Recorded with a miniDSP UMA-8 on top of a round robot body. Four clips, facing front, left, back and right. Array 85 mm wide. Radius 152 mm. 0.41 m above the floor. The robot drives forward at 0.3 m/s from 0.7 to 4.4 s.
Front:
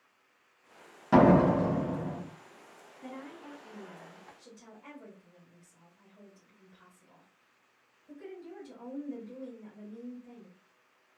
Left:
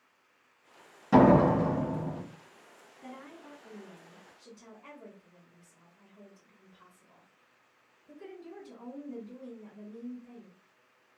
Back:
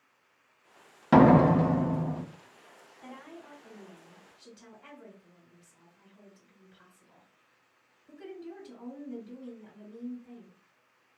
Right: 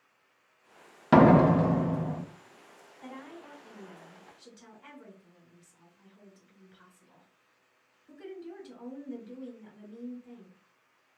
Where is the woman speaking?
120° right, 2 m; by 10.6 s 130° right, 2.5 m.